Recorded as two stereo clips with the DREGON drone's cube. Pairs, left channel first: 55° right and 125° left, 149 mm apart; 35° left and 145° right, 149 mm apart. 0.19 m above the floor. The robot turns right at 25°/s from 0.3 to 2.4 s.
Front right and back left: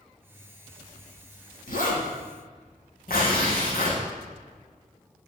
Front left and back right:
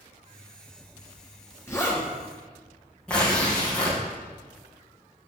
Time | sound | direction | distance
1.7 | a zipper | 40° right | 3 m
3.1 | tearing paper | 50° right | 3.5 m